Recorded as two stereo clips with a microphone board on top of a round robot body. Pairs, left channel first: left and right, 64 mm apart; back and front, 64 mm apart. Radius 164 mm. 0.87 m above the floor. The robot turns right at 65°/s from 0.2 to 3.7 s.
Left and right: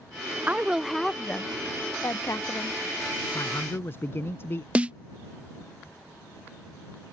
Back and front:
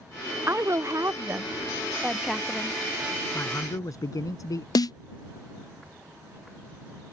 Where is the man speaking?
125° left; by 4.7 s 145° left.